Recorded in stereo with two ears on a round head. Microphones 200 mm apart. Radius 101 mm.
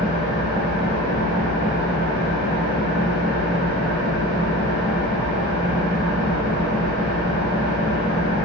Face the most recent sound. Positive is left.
turn(degrees=-80)